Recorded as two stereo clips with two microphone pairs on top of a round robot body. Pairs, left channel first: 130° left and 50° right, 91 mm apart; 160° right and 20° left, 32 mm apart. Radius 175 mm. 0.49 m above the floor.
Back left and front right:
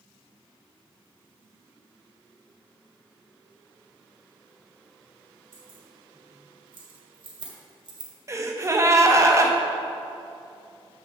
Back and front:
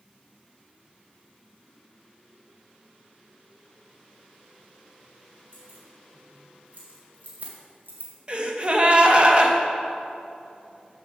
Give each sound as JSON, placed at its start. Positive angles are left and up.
{"t": 5.5, "sound": "keys jangling", "azimuth_deg": -20, "distance_m": 3.5}
{"t": 8.3, "sound": "a gasp", "azimuth_deg": -15, "distance_m": 1.3}